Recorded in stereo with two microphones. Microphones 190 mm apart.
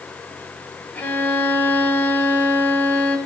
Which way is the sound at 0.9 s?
10° left (ahead or behind).